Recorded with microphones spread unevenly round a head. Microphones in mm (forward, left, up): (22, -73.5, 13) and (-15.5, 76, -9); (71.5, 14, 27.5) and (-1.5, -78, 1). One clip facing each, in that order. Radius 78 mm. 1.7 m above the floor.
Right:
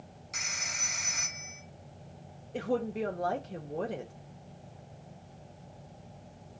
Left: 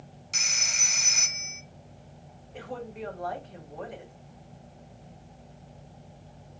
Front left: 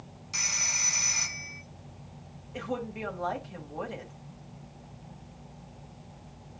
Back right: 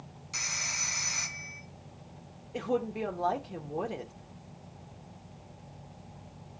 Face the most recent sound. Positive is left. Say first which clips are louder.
# right 7 dB, back right 4 dB
turn(degrees=-65)